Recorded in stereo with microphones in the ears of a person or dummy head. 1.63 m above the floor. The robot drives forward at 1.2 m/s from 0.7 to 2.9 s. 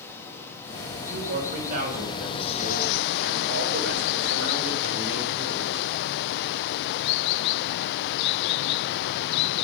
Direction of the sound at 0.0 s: 10° left (ahead or behind).